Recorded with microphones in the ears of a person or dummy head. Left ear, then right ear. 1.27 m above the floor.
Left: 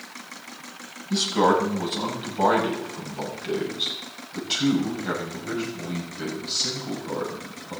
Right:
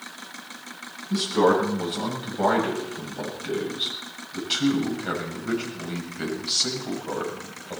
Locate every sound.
1.1 s a man speaking: 15° left (ahead or behind), 7.5 m; by 7.8 s 30° right (ahead or behind), 7 m